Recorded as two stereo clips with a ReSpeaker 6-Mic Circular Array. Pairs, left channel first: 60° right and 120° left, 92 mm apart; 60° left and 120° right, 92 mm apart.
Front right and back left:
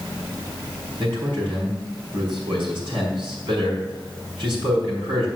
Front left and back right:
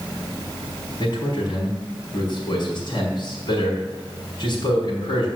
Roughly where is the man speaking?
Left.